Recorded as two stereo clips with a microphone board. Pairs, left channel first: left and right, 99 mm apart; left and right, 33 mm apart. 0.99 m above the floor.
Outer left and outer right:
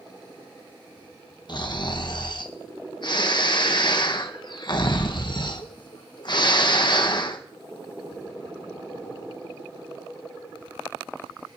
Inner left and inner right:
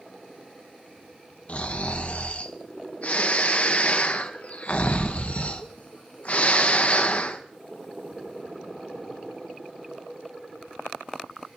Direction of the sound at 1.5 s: 50° left (ahead or behind).